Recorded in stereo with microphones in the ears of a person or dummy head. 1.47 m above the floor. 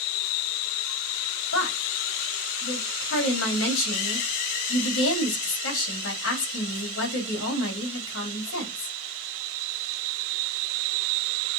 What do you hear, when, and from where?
1.5 s a woman speaking: 85° left, 3 m